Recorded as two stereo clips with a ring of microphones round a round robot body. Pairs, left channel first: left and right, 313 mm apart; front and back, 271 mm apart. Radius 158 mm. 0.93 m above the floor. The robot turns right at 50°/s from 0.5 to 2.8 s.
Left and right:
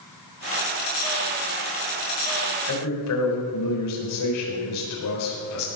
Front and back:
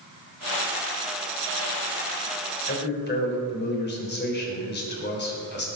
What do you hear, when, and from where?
2.7 s a man speaking: 45° left, 4 m; by 5.7 s 50° left, 4 m